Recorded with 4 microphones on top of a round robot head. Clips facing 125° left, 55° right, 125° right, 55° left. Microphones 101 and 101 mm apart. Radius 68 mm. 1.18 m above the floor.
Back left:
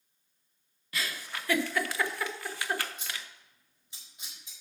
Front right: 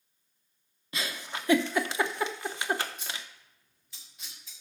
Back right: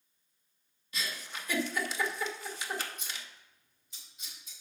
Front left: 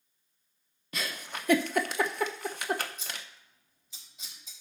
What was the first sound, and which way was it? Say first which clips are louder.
A giggle: front right 1 dB, front left 3 dB; 15° left.